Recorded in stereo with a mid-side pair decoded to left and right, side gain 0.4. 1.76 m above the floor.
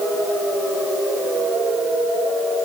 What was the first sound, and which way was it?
Only background noise.